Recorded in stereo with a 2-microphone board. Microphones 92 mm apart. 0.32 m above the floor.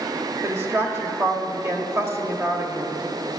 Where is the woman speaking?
25° right (ahead or behind), 1.2 m.